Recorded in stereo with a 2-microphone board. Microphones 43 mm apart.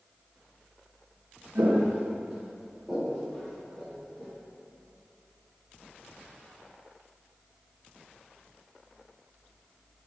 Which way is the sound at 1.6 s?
75° right (ahead or behind).